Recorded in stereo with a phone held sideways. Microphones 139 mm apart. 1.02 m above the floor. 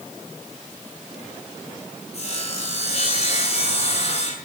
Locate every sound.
2.1 s sawing: 50° left (ahead or behind), 7 m